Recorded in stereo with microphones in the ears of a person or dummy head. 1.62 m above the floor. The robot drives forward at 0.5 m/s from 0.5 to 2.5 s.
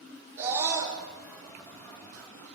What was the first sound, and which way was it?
A scream, 15° right (ahead or behind).